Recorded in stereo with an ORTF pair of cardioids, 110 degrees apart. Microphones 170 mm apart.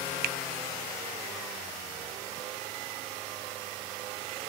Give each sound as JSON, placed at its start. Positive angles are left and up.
{"t": 0.2, "sound": "a finger snap", "azimuth_deg": -60, "distance_m": 0.6}